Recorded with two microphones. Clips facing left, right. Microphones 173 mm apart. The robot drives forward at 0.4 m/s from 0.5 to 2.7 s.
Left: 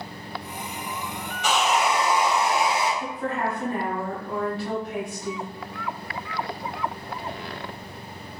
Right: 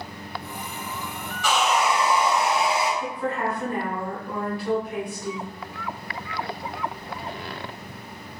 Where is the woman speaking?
25° left (ahead or behind), 1.6 m.